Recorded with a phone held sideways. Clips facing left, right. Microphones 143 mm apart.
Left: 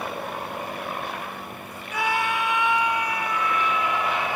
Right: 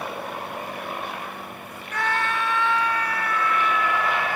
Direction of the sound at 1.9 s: 10° left (ahead or behind).